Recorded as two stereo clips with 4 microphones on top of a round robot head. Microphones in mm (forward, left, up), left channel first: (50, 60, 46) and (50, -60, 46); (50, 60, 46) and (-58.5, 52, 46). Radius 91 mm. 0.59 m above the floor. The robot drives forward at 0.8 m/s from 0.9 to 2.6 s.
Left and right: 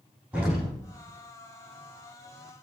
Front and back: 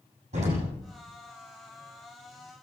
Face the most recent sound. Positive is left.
turn(degrees=-175)